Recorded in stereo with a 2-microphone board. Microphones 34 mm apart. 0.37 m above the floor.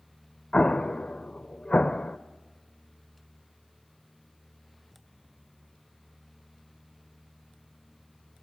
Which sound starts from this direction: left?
An explosion, at 0.5 s.